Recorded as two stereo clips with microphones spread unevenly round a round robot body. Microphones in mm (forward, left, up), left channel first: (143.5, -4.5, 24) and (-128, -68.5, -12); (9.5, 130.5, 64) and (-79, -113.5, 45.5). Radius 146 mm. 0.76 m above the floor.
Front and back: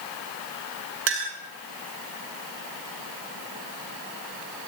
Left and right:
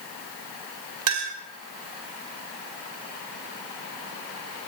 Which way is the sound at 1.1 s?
120° right.